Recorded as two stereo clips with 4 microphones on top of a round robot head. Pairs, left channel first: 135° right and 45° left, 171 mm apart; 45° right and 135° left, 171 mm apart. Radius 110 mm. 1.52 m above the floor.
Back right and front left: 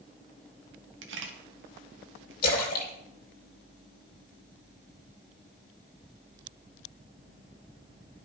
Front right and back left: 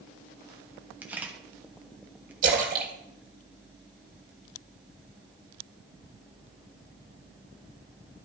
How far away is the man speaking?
I don't hear a man speaking.